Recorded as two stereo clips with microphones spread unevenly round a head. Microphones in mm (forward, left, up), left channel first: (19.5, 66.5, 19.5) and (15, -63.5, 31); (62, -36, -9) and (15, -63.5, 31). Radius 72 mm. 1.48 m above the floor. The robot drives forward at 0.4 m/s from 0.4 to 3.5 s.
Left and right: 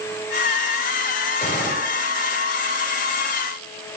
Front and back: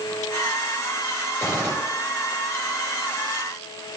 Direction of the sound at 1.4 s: 135° left.